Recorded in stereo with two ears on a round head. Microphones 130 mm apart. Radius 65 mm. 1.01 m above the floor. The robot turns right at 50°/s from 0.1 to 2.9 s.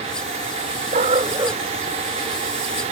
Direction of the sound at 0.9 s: 50° right.